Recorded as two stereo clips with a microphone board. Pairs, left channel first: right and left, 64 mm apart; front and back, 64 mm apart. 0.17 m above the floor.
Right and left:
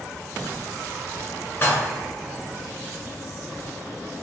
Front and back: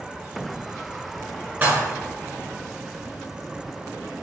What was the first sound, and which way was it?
Dishes clattering, 135° right.